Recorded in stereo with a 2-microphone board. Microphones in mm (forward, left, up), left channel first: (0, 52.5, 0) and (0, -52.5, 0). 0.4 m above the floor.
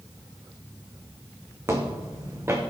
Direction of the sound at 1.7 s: 25° right (ahead or behind).